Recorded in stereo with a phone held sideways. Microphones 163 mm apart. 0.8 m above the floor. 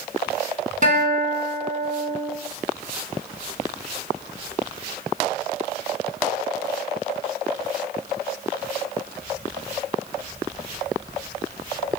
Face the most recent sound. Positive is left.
turn(degrees=-50)  # may be behind; listen again after turning